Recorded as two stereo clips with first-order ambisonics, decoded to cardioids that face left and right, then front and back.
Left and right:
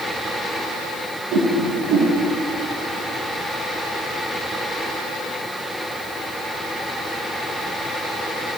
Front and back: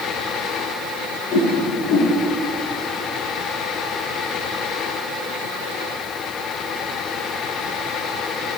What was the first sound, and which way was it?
A whoosh, 55° right.